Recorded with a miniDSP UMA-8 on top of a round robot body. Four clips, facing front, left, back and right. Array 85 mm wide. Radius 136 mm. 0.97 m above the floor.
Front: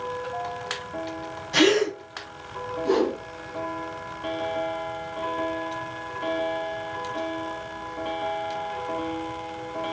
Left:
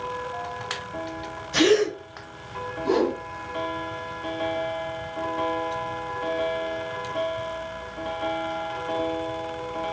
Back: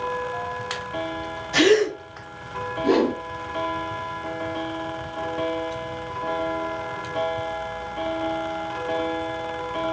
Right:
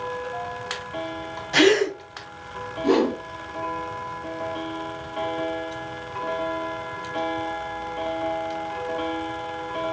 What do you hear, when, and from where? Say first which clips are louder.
1.5 s a gasp: right 1 dB, back 3 dB; 90° right, 1.7 m
2.8 s a whoosh: right 3 dB, back 3 dB; 135° right, 2.0 m